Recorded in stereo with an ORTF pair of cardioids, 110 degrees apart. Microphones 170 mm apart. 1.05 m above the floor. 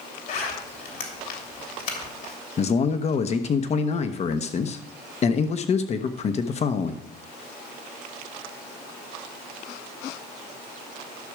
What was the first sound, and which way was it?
A zipper, 55° left.